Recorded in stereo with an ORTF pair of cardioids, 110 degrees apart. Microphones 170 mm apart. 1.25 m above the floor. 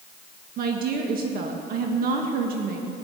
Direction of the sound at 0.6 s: 60° right.